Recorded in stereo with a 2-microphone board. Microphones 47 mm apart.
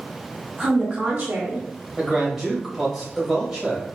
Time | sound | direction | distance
0.6 | a woman speaking | 10° right (ahead or behind) | 1.1 m
2.0 | a man speaking | 5° right (ahead or behind) | 2 m